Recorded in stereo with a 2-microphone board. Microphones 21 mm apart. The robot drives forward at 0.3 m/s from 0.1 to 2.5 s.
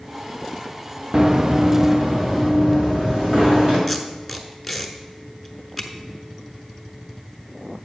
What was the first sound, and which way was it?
Running footsteps, 30° right (ahead or behind).